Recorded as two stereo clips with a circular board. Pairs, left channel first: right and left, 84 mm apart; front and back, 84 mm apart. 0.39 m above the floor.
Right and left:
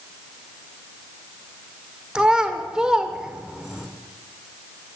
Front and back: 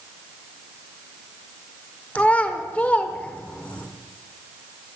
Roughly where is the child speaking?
Ahead left.